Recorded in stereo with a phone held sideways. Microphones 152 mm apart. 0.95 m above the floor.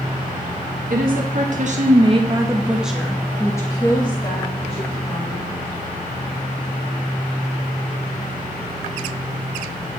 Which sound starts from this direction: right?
A woman speaking, at 0.9 s.